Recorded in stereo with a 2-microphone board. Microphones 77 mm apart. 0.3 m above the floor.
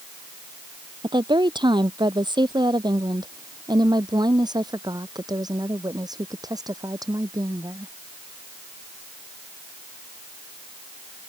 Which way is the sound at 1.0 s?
80° right.